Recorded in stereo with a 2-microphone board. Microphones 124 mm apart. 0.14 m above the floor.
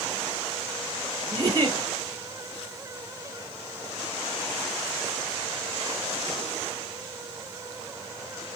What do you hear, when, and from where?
1.3 s a giggle: 30° right (ahead or behind), 1.2 m